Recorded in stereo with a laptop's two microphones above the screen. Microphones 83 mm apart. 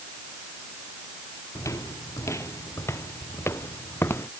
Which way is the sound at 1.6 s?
40° left (ahead or behind).